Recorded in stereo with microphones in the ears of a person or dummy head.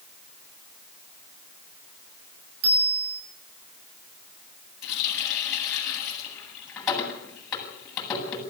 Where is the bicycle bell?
60° right (ahead or behind), 7 m.